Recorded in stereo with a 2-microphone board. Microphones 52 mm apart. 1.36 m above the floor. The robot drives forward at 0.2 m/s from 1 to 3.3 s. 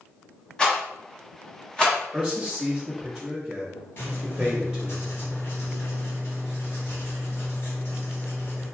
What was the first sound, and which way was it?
A rattle, 15° left (ahead or behind).